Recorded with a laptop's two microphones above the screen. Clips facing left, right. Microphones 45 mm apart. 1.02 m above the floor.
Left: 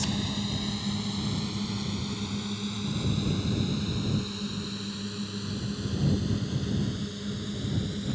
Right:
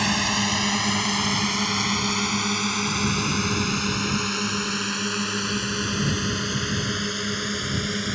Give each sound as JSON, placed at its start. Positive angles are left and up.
{"t": 0.0, "sound": "a drone", "side_deg": -80}